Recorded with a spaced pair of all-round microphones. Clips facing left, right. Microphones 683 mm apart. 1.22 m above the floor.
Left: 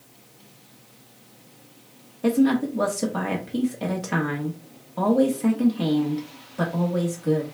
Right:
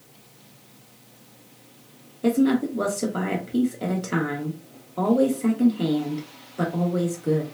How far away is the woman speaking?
About 1.3 m.